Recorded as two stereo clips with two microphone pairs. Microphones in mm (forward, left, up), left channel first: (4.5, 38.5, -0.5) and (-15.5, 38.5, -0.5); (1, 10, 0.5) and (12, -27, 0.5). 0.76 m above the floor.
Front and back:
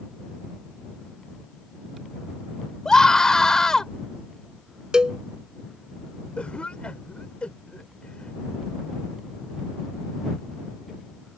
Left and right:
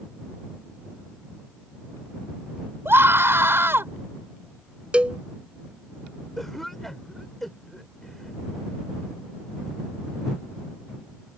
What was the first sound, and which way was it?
A scream, 60° right.